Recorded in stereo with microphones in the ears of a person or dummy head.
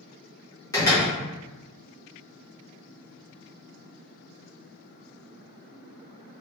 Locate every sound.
0.7 s a door slam: 20° left (ahead or behind), 0.8 m